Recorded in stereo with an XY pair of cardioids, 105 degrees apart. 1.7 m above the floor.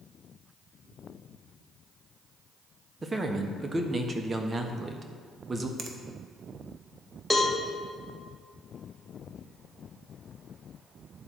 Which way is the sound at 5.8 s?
50° right.